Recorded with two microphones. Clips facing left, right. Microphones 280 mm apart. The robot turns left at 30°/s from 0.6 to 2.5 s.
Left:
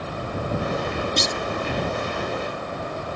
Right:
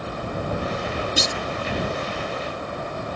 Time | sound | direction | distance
1.2 | a clunk | 5° right (ahead or behind) | ?